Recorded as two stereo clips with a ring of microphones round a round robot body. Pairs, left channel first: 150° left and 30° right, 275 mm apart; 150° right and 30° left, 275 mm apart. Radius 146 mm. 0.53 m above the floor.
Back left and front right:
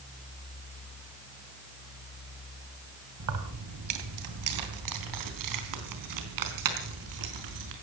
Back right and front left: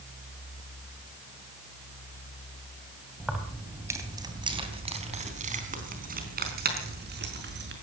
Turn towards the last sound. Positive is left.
turn(degrees=-20)